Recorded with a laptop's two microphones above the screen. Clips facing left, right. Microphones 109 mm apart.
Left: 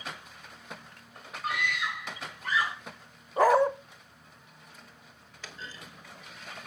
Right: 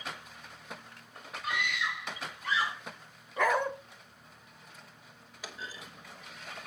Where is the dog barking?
35° left (ahead or behind), 1.3 m.